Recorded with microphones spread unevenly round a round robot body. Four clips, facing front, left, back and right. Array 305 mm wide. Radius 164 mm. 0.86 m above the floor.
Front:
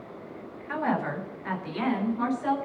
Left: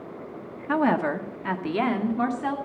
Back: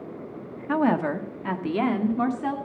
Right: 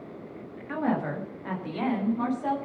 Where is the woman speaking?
125° left, 1.9 m; by 2.5 s 160° left, 3 m.